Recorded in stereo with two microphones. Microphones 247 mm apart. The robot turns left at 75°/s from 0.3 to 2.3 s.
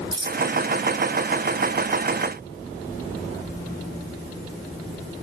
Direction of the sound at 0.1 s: 20° right (ahead or behind).